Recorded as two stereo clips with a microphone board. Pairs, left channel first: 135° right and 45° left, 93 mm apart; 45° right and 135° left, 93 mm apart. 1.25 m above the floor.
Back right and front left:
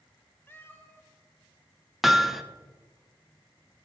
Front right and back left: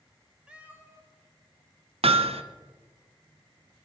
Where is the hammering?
130° left, 0.6 m.